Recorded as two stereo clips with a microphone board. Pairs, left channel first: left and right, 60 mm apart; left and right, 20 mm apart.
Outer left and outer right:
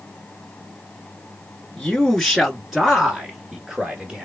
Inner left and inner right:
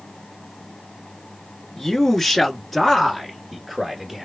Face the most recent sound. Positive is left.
turn(degrees=-25)  # may be behind; listen again after turning